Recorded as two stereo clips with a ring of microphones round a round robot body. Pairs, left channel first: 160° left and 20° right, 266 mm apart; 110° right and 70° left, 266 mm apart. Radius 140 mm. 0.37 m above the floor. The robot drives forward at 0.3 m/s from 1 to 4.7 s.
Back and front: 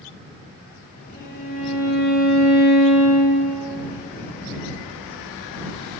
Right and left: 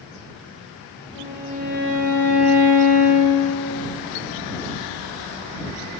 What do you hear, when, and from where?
1.1 s a violin: 125° right, 0.5 m; by 3.5 s 155° right, 1.1 m